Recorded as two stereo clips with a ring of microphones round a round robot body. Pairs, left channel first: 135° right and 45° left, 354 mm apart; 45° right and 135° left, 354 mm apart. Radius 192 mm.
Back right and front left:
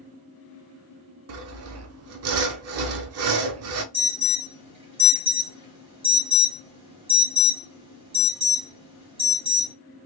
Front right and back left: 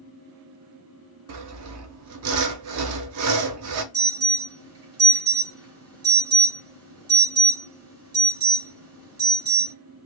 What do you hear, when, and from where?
1.3 s sawing: 90° left, 0.6 m
3.9 s an alarm: 115° left, 2.5 m